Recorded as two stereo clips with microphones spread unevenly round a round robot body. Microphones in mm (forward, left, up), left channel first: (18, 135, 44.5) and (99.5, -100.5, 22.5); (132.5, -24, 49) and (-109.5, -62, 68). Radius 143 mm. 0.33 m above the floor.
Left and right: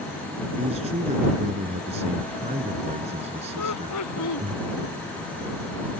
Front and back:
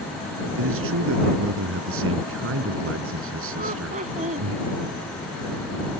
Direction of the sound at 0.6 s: 140° right.